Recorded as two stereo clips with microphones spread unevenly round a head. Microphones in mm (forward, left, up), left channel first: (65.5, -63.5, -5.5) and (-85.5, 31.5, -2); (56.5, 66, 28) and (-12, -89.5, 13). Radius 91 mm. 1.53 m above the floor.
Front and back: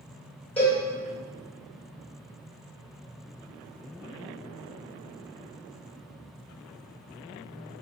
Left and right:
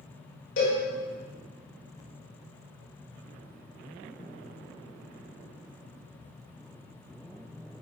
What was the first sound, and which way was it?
A cowbell, 50° left.